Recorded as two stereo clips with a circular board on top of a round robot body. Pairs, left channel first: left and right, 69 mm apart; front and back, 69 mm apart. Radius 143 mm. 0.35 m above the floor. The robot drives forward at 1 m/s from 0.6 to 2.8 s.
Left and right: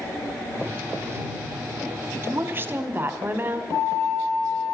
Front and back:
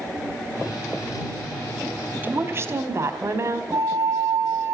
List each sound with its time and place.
2.2 s a woman speaking: 130° right, 1.6 m; by 3.6 s 145° right, 2.0 m
3.7 s a flute: 130° left, 3 m